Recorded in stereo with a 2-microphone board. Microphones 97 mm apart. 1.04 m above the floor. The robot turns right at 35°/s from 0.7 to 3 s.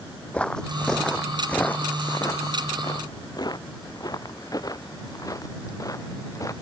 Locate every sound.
0.3 s footsteps: 15° left (ahead or behind); by 6.5 s 35° left (ahead or behind)